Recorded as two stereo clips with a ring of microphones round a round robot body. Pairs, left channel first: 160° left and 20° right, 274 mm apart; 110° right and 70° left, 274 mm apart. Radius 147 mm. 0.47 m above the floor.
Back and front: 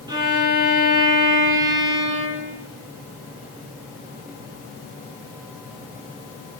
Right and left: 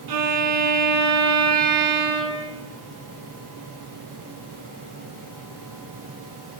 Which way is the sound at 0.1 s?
55° left.